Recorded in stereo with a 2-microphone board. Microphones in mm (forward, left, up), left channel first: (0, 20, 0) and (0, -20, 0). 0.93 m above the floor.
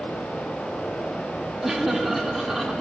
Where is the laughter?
5° right (ahead or behind), 2 m.